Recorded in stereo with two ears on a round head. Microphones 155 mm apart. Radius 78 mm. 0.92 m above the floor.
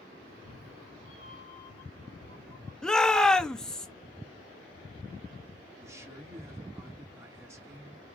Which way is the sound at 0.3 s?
50° left (ahead or behind).